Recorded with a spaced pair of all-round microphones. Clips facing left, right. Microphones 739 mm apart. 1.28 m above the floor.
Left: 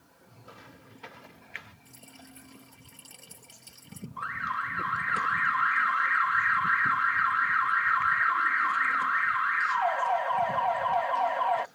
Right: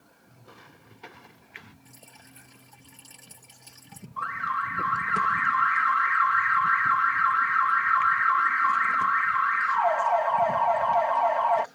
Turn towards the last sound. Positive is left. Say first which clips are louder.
# right 3 dB
turn(degrees=-65)  # may be behind; listen again after turning